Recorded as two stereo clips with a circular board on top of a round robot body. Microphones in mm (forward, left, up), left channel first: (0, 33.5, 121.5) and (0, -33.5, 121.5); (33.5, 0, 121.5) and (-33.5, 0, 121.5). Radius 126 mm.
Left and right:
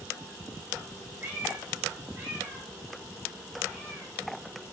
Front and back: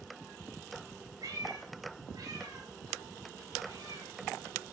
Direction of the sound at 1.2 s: 165° right.